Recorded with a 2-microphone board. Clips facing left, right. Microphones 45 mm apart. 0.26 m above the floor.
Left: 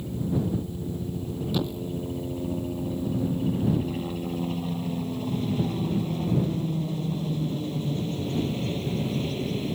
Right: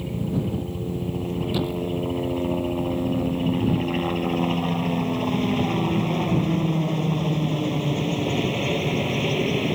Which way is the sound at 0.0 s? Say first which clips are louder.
Right 2 dB; 60° right (ahead or behind).